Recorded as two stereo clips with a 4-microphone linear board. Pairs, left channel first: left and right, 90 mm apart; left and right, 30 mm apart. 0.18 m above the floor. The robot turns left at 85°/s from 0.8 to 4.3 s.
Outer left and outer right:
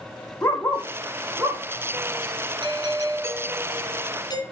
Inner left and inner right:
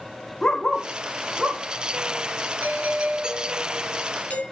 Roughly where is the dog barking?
Left.